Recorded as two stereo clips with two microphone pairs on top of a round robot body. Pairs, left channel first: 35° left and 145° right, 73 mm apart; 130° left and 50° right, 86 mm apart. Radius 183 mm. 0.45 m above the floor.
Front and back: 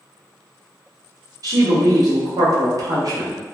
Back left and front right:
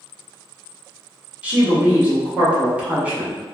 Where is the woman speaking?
120° right, 1.4 m.